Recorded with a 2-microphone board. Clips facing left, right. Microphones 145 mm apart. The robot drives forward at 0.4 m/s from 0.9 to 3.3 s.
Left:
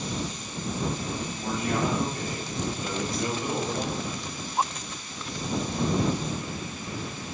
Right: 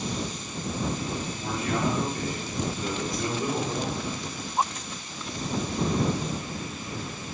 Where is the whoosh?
50° right (ahead or behind), 0.6 m; by 3.3 s 55° right (ahead or behind), 0.5 m.